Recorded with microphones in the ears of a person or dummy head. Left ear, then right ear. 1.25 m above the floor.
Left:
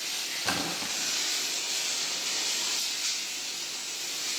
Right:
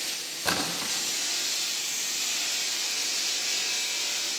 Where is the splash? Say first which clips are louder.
Right 5 dB; 15° right (ahead or behind), 5.5 m.